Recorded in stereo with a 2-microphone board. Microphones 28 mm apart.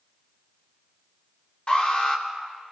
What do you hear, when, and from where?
1.7 s an alarm: 45° left (ahead or behind), 3 m